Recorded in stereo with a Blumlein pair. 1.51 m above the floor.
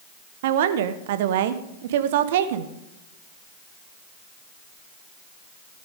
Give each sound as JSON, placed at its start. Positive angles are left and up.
{"t": 0.4, "sound": "a woman speaking", "azimuth_deg": -55, "distance_m": 1.2}